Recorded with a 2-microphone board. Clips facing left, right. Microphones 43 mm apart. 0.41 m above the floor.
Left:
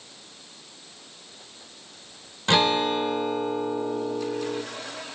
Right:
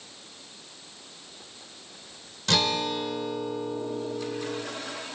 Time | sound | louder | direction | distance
2.5 | a guitar | left 5 dB | 25° left (ahead or behind) | 1.2 m